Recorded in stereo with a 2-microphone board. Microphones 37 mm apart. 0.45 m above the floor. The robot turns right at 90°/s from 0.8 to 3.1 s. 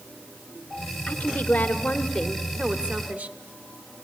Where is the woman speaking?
55° left, 1.7 m; by 3.4 s 120° right, 1.7 m.